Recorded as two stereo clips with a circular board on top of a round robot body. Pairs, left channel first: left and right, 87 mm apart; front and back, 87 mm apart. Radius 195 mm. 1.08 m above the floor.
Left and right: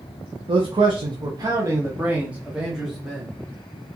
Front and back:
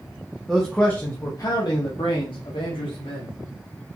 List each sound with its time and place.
0.5 s a man speaking: 90° right, 1.0 m; by 3.3 s straight ahead, 1.9 m